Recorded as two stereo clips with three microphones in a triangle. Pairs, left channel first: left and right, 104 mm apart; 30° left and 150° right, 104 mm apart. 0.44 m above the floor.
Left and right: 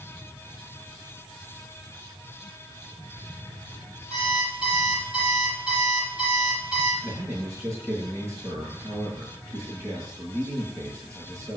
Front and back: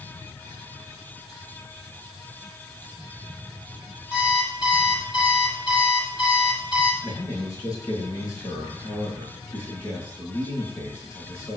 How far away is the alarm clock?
About 7 m.